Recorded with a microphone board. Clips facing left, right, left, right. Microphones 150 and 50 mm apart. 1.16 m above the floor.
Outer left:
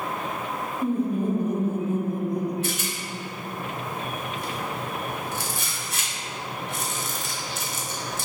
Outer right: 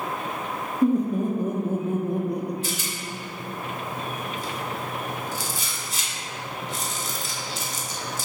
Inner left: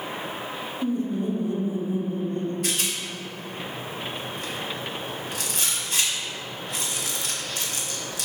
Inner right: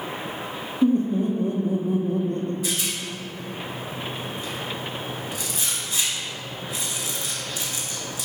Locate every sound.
0.8 s laughter: 35° right (ahead or behind), 1.6 m; by 2.5 s 60° right (ahead or behind), 1.3 m
2.6 s a rattle: 60° left (ahead or behind), 1.7 m